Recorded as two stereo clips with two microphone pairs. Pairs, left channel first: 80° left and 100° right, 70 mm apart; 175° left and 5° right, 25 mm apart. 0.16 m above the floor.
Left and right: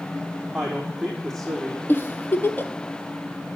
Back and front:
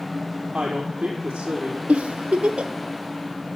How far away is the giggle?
About 1.0 m.